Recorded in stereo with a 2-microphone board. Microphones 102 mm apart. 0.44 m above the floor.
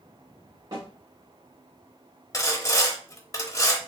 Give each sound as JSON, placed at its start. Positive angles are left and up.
{"t": 0.7, "sound": "a snare drum", "side_deg": -45, "distance_m": 3.0}
{"t": 2.3, "sound": "sawing", "side_deg": 35, "distance_m": 0.8}